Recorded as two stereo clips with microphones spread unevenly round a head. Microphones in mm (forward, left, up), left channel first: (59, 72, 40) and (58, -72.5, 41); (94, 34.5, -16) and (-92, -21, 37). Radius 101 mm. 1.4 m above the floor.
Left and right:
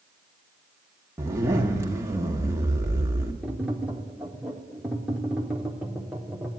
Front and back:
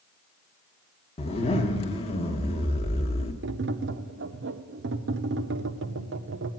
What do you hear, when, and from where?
1.2 s a zipper: 40° right, 0.9 m
3.4 s tapping: 175° right, 0.6 m